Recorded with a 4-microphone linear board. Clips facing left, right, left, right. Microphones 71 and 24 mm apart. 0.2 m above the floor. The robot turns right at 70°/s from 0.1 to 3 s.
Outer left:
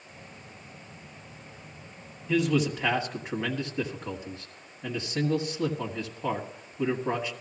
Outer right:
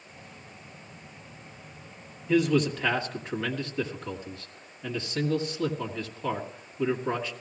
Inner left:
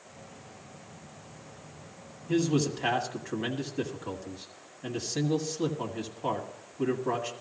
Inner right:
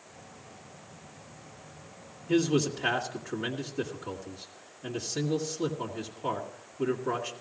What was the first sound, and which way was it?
A man speaking, 5° right (ahead or behind).